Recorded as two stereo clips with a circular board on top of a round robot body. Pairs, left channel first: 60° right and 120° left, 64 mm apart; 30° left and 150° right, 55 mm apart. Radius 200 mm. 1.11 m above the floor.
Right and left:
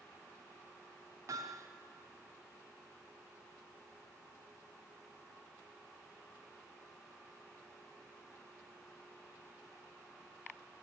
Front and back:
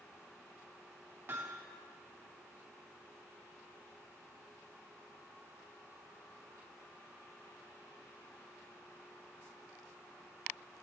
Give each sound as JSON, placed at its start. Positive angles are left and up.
{"t": 1.3, "sound": "hammering", "azimuth_deg": 160, "distance_m": 1.0}